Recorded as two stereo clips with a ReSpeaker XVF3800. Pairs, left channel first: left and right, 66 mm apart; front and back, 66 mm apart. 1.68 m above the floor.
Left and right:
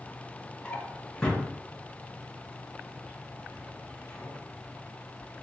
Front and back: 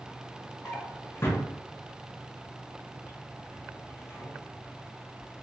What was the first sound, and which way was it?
A drawer, 15° left.